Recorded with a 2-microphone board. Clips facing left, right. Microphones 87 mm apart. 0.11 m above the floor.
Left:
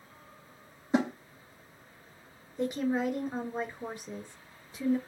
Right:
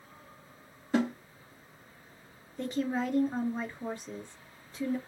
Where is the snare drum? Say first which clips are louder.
Left 1 dB; 20° left (ahead or behind), 0.8 m.